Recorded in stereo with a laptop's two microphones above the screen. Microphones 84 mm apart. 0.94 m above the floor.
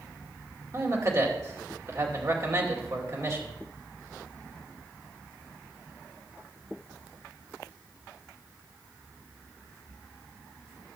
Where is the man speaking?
40° right (ahead or behind), 2.5 m.